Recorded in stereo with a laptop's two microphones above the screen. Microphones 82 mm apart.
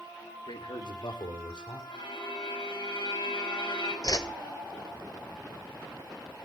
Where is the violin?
85° left, 6.5 m.